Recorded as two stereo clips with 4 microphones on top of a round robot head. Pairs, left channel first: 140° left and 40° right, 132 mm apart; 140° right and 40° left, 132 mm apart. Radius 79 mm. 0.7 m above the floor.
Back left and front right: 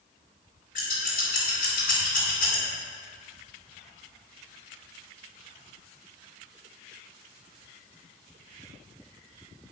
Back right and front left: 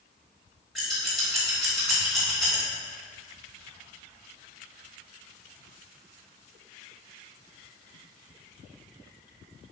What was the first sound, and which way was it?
Scissors, 130° left.